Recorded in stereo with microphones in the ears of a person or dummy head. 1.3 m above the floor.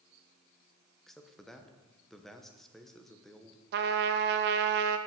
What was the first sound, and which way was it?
A man speaking, centre (ahead or behind).